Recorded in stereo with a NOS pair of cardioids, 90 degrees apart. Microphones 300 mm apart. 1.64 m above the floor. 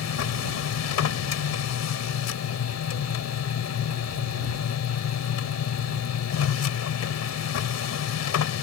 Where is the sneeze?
No sneeze in this recording.